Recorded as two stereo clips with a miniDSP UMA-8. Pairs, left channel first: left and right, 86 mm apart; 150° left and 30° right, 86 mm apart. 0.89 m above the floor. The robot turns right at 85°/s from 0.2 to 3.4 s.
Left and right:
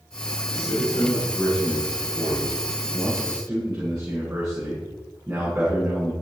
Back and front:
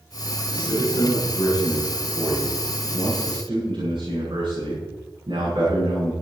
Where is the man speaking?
100° left, 7.5 m; by 6.1 s 10° right, 7.5 m.